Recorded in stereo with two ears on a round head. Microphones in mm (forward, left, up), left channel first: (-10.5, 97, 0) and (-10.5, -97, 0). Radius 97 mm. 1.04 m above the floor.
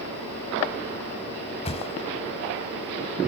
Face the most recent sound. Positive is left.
turn(degrees=30)  # may be behind; listen again after turning